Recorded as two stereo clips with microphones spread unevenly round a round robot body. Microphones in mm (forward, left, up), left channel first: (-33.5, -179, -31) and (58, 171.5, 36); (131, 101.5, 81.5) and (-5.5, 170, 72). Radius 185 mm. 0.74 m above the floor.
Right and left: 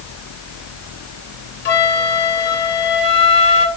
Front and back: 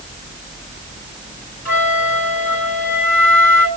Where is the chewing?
I don't hear chewing.